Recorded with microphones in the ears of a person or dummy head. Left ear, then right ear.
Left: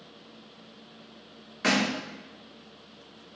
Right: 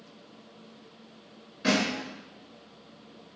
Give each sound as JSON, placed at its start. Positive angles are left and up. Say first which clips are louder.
{"t": 1.6, "sound": "a thud", "louder": "left 1 dB", "side_deg": 40, "distance_m": 2.5}